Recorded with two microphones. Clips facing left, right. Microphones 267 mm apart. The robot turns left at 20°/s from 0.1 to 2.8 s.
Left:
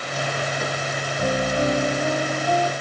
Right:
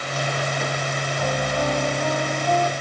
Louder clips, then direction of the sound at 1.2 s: Left 3 dB; 35° left.